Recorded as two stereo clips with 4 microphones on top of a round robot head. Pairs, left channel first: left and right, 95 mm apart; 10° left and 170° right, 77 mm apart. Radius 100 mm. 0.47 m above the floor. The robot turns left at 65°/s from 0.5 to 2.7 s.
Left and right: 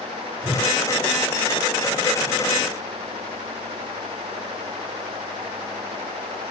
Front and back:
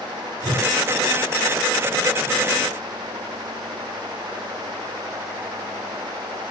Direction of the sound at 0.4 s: 170° right.